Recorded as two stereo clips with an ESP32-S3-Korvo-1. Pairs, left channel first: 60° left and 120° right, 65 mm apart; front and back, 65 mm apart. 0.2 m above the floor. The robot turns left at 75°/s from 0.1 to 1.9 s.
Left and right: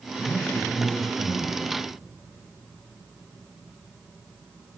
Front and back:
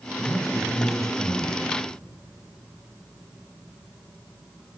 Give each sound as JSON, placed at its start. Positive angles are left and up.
{"t": 0.2, "sound": "a man speaking", "azimuth_deg": 40, "distance_m": 3.5}